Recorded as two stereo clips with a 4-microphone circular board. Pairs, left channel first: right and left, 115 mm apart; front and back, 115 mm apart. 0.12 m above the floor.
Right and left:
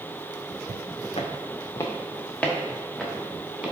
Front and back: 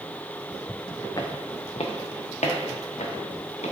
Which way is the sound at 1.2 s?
60° right.